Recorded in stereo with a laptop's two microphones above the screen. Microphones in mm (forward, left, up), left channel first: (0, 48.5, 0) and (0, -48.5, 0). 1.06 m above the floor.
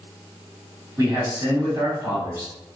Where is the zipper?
I don't hear a zipper.